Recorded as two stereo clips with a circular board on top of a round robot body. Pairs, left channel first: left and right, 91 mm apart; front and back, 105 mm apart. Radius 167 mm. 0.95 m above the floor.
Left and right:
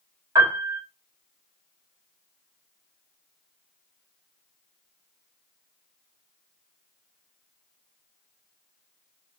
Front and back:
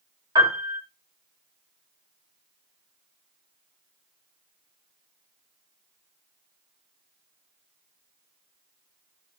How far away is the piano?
About 2 m.